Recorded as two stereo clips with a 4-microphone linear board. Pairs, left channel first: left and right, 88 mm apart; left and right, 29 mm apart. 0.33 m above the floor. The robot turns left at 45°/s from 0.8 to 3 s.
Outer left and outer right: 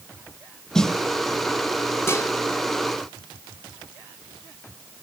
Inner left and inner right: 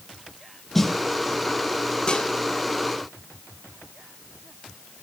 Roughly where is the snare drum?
Centre.